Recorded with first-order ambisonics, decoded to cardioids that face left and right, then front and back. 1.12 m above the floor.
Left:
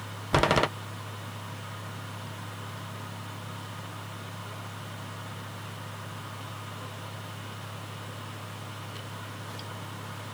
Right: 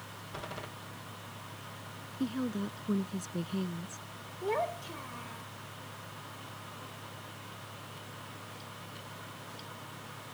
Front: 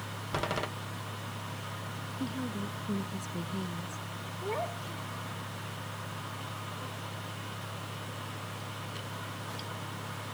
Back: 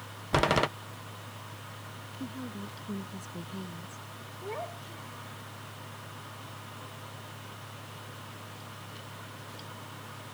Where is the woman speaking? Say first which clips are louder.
Right 4 dB, front 3 dB; 80° right.